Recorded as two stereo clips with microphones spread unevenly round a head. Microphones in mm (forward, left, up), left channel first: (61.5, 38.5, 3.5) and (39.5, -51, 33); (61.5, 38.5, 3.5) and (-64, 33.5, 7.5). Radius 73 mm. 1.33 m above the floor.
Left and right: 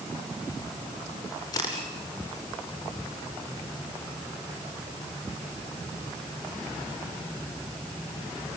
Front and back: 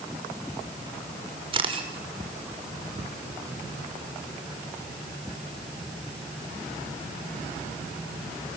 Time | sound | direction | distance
1.5 | a camera shutter | 135° left | 5.5 m